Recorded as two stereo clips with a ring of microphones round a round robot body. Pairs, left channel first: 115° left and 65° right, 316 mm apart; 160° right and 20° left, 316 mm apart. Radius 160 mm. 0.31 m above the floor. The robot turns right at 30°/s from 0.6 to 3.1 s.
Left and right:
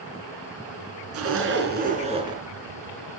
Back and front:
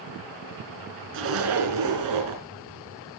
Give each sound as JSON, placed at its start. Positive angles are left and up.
{"t": 1.1, "sound": "a zipper", "azimuth_deg": -25, "distance_m": 3.5}